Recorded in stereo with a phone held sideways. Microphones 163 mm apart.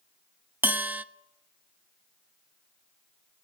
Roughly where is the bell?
Centre.